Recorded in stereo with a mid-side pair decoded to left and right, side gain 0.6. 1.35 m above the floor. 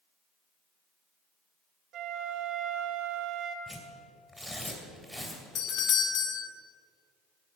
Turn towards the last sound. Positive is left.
turn(degrees=55)